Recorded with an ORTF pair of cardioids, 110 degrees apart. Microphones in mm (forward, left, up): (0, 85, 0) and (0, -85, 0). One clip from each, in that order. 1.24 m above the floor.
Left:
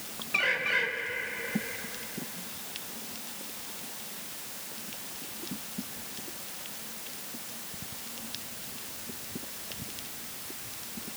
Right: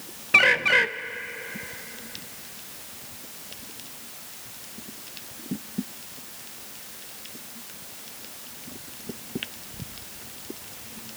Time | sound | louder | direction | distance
0.3 | a bird | right 9 dB | 55° right | 0.8 m